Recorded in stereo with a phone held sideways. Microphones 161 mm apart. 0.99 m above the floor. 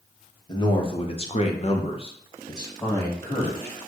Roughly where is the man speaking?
Left.